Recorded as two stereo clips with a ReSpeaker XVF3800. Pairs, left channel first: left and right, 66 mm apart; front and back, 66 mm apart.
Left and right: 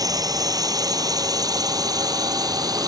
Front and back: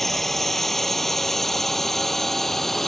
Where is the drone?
85° right.